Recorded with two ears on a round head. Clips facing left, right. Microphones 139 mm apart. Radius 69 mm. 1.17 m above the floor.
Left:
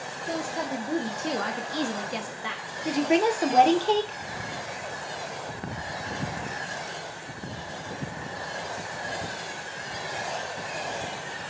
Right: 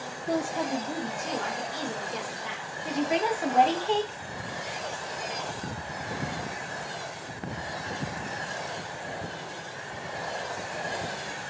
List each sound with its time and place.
0.3 s a woman speaking: 5° right (ahead or behind), 0.7 m; by 2.8 s 65° left (ahead or behind), 1.1 m
2.9 s a woman speaking: 50° left (ahead or behind), 0.8 m